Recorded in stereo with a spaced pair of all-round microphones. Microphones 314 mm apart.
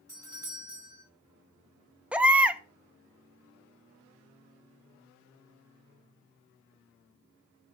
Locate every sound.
0.1 s a doorbell: 50° right (ahead or behind), 4.5 m
2.1 s a baby crying: 5° right (ahead or behind), 0.6 m